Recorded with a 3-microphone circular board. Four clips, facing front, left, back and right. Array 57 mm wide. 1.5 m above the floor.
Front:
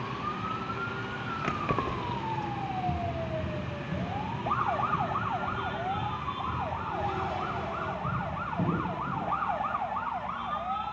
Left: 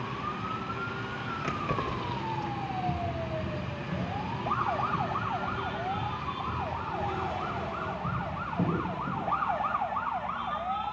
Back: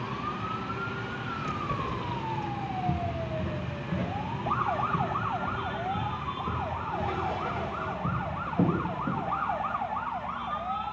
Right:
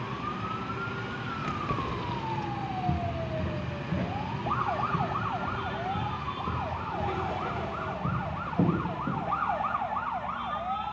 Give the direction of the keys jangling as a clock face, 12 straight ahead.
12 o'clock.